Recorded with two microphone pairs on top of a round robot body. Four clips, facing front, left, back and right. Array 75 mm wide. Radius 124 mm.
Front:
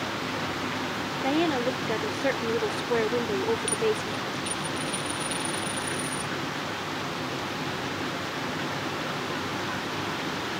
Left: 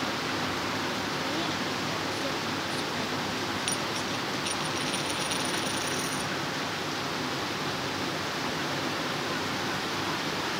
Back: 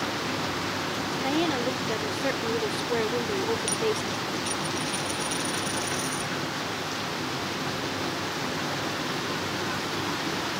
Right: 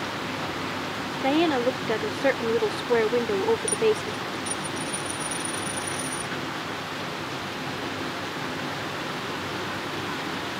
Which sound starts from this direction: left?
A dropped coin, at 3.7 s.